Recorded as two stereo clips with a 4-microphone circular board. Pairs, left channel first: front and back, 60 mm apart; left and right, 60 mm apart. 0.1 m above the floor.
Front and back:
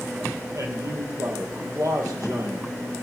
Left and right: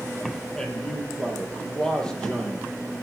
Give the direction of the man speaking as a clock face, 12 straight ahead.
7 o'clock.